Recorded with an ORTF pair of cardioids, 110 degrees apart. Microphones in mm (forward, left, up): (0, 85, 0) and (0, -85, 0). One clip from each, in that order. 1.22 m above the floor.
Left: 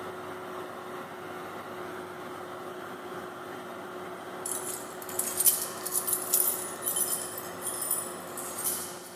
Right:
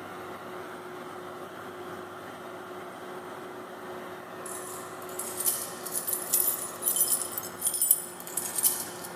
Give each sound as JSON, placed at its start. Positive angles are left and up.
{"t": 4.5, "sound": "keys jangling", "azimuth_deg": 40, "distance_m": 1.4}